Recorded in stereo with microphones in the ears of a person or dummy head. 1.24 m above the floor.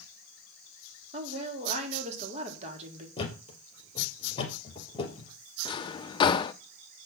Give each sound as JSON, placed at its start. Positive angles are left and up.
{"t": 1.1, "sound": "a woman speaking", "side_deg": -40, "distance_m": 3.0}
{"t": 3.2, "sound": "a thud", "side_deg": 30, "distance_m": 3.0}
{"t": 5.7, "sound": "a drawer", "side_deg": 30, "distance_m": 0.5}